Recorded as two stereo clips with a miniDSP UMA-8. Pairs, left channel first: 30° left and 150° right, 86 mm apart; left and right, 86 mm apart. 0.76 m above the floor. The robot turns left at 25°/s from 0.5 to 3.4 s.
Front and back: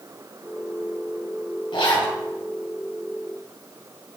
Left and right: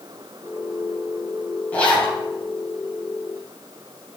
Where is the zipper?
20° left, 2.5 m; by 2.2 s 5° left, 2.5 m.